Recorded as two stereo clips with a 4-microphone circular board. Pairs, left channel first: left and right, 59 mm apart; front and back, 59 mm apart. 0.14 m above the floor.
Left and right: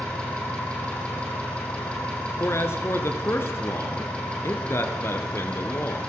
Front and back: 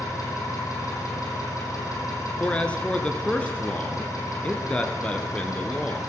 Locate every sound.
0.0 s an engine running: 15° left, 4.5 m
2.4 s a man speaking: 65° left, 1.7 m